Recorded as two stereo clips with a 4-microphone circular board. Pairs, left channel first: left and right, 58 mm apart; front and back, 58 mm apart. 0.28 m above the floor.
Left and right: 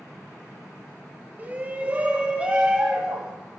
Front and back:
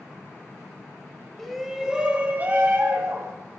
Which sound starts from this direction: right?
A shout, at 1.4 s.